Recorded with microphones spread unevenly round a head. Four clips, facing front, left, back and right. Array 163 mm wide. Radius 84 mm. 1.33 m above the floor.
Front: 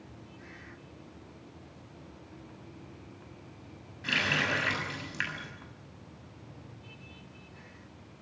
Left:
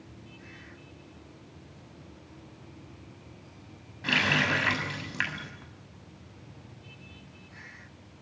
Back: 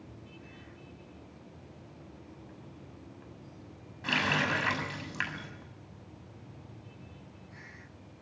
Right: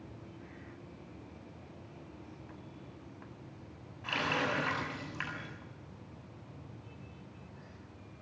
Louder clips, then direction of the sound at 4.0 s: Left 5 dB, back 1 dB; 105° left.